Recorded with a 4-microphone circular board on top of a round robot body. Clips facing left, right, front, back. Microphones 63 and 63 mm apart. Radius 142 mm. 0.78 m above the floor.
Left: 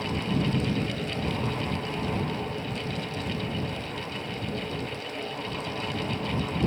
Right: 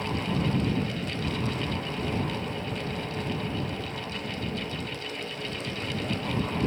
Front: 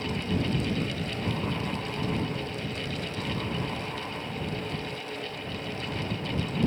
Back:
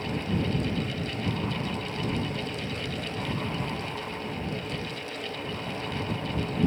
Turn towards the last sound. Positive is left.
No sound to turn to.